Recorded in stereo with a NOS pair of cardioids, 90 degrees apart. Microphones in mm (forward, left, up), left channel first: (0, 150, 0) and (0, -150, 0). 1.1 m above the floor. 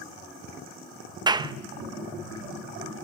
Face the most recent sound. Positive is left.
turn(degrees=-15)